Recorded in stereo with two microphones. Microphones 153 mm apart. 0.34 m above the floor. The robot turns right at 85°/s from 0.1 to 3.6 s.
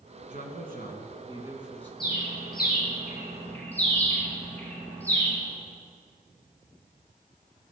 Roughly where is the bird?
Left.